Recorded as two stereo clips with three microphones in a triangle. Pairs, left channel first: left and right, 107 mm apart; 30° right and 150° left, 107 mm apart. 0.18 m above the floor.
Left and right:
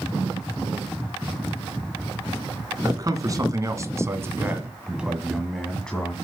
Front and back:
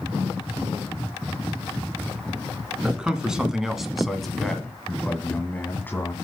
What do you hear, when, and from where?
2.8 s a man speaking: 130° right, 1.9 m; by 6.2 s 20° left, 1.4 m